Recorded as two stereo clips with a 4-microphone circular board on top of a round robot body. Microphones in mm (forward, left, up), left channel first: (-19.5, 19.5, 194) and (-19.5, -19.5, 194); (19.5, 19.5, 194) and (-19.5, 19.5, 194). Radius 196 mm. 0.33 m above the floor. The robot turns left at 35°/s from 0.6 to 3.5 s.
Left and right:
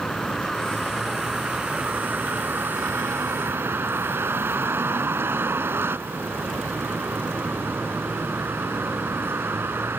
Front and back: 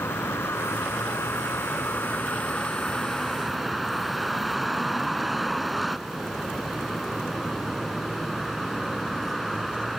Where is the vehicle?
10° left; by 10.0 s 90° right.